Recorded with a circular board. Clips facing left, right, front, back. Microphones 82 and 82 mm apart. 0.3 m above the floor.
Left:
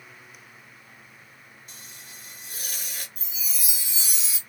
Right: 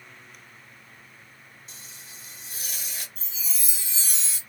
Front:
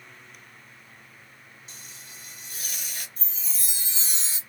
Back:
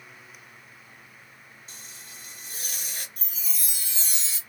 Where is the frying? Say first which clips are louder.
Left 1 dB, even; 130° left, 1.4 m.